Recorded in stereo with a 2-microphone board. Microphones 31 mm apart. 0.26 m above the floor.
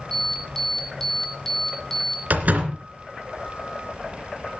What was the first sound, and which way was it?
An alarm, 15° left (ahead or behind).